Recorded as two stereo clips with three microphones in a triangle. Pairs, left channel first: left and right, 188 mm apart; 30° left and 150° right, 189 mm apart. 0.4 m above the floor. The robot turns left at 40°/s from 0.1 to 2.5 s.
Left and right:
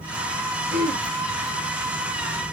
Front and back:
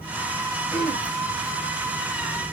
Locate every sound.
0.7 s throat clearing: 55° right, 2.5 m; by 1.1 s 70° right, 2.5 m